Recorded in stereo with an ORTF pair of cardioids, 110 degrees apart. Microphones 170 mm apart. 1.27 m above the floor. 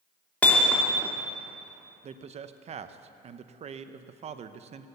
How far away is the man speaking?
About 0.8 m.